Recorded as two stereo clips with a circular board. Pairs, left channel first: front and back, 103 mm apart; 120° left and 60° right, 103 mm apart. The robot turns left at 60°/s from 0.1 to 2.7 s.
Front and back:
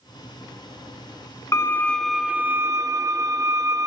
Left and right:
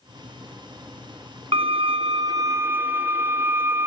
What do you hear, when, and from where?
1.5 s a violin: 55° right, 1.0 m; by 3.9 s 125° right, 1.0 m